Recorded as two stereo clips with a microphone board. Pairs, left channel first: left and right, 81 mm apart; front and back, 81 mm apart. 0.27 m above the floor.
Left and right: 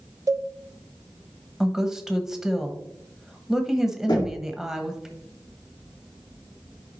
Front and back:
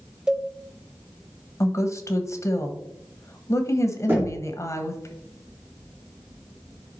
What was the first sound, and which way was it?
A cowbell, 100° right.